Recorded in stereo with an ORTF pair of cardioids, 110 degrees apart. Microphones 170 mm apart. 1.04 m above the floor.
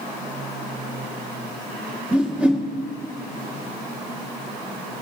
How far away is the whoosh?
About 1.4 m.